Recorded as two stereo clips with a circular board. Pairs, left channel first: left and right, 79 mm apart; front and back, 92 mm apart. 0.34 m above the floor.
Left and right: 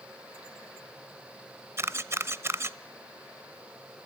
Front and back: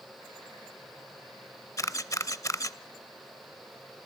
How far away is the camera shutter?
About 0.6 m.